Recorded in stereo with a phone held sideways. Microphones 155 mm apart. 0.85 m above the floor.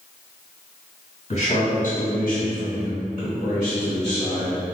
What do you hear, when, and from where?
1.3 s a man speaking: 45° left (ahead or behind), 1.1 m; by 4.6 s 30° left (ahead or behind), 1.5 m